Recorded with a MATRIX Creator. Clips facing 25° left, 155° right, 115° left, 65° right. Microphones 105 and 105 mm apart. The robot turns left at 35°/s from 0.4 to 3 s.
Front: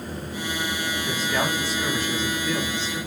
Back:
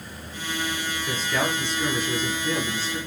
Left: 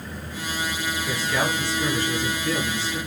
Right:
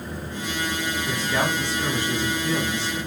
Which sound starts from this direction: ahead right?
A man speaking, at 1.1 s.